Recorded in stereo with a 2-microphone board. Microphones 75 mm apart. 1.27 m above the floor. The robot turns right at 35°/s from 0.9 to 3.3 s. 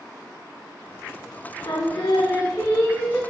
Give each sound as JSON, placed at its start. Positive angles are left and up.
{"t": 1.6, "sound": "singing", "azimuth_deg": 105, "distance_m": 1.1}